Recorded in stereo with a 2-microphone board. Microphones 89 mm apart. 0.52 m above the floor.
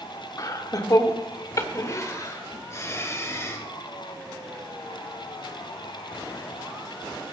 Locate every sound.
0.4 s laughter: 40° left (ahead or behind), 1.1 m; by 3.6 s 30° left (ahead or behind), 2.5 m